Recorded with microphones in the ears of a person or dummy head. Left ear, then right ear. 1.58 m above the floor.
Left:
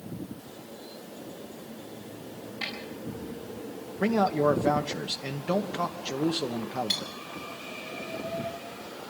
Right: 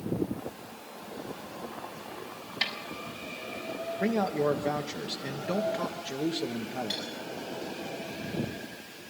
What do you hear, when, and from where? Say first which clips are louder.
2.6 s a snare drum: right 4 dB; 60° right (ahead or behind), 7 m
4.0 s a man speaking: left 4 dB; 20° left (ahead or behind), 1.3 m
6.9 s cutlery clinking: left 6 dB; 25° left (ahead or behind), 8.5 m